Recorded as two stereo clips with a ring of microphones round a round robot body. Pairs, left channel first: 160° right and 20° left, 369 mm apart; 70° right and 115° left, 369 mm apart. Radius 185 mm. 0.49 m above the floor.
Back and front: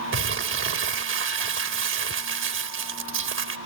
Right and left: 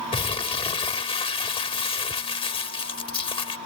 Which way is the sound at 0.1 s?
Straight ahead.